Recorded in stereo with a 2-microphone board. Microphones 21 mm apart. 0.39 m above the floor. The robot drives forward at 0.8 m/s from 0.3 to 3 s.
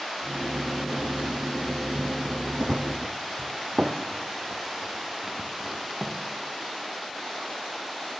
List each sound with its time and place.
2.6 s running footsteps: 45° right (ahead or behind), 1.3 m; by 6.2 s 25° right (ahead or behind), 4 m